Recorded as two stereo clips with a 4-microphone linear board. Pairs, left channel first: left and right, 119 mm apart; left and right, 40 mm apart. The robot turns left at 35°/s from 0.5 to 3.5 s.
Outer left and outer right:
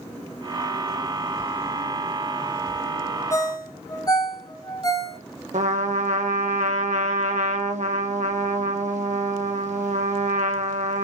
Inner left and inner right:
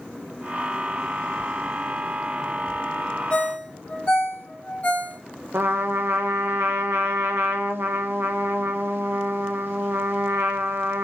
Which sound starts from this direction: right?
A trumpet, at 5.5 s.